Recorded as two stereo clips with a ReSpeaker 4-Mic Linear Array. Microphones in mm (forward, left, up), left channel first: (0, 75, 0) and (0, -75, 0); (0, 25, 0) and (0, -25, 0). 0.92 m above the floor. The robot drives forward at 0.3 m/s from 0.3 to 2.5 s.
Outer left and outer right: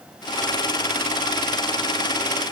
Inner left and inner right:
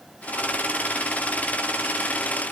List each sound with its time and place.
Only background noise.